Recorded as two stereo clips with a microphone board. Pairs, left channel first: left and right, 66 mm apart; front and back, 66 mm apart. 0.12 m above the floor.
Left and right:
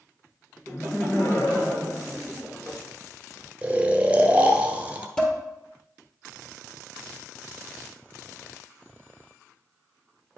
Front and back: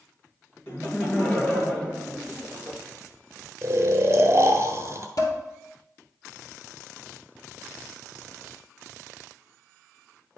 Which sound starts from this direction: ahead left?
Laughter, at 0.7 s.